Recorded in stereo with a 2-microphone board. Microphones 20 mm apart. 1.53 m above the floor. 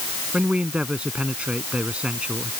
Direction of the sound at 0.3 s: 80° right.